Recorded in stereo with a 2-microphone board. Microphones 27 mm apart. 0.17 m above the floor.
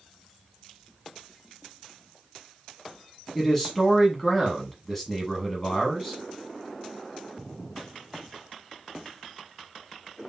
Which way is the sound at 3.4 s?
10° left (ahead or behind).